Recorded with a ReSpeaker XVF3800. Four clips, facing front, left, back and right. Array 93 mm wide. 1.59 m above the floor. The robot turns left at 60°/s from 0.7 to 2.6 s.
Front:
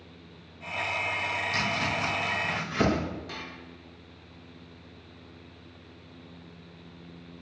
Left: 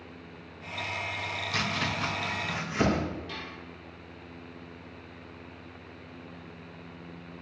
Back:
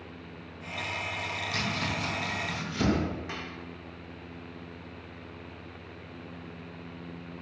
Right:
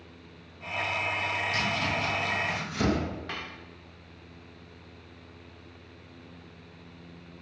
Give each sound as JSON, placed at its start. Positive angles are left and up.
{"t": 1.5, "sound": "chopping", "azimuth_deg": 90, "distance_m": 2.5}
{"t": 3.3, "sound": "dishes clattering", "azimuth_deg": -115, "distance_m": 1.5}